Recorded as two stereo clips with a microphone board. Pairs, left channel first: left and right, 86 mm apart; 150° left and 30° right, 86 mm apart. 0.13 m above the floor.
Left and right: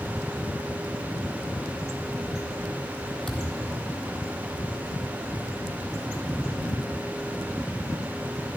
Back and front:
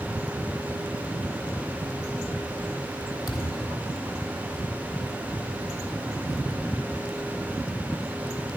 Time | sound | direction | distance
3.3 | a thud | 175° left | 1.7 m